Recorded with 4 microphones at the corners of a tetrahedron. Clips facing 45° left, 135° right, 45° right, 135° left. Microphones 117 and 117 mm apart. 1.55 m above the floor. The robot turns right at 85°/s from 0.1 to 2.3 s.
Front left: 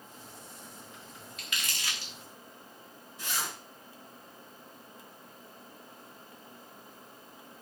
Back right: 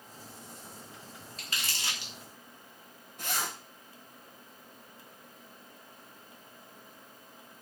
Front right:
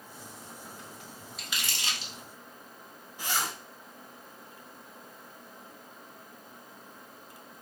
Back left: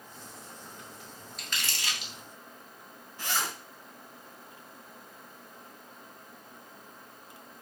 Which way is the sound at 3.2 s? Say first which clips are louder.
Back right 2 dB, even; 120° right.